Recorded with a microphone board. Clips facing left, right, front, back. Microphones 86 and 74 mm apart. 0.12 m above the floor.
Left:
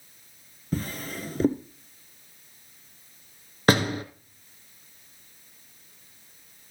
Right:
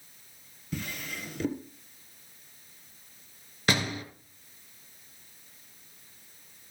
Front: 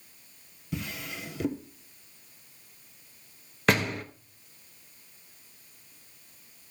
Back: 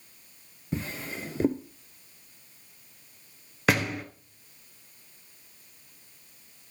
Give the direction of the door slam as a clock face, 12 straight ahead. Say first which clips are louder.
Left 7 dB, even; 9 o'clock.